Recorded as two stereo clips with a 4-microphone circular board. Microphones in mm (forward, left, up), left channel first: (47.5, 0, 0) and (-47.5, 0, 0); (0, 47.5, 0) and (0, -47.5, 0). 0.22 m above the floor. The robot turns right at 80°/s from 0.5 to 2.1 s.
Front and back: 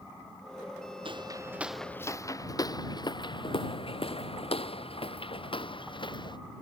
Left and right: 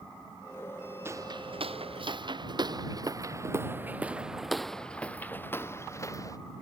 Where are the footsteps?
155° right; by 6.4 s 35° left.